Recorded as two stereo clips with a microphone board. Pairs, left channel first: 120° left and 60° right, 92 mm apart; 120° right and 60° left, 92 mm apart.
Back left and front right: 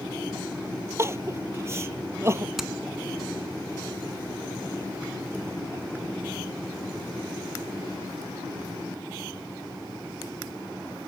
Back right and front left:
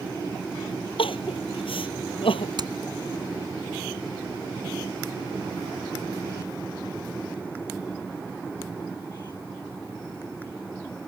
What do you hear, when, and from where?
1.0 s crying: 120° right
2.6 s hammering: 25° left